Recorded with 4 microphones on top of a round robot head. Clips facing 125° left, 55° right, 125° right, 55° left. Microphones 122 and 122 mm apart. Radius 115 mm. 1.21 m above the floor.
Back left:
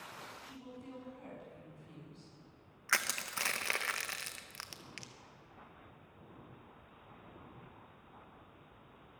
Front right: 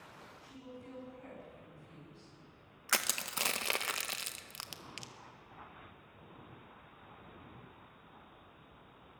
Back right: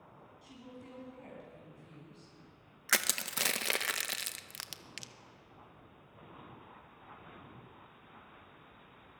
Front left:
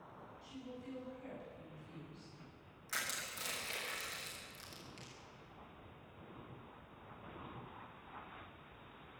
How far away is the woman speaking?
About 9.5 m.